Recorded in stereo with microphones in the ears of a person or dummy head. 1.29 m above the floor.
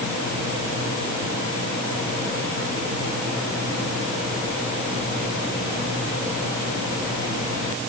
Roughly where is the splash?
No splash in this recording.